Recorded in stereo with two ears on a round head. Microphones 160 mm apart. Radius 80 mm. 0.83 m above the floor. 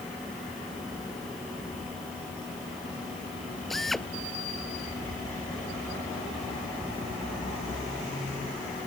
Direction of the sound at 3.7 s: Centre (ahead or behind).